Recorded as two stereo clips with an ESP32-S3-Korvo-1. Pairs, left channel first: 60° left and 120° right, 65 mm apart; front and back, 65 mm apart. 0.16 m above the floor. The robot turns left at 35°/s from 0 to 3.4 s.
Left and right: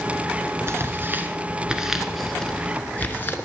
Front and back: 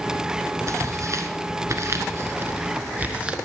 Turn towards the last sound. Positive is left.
turn(degrees=105)